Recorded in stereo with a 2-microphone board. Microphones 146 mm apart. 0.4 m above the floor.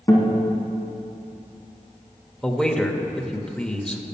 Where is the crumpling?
I don't hear crumpling.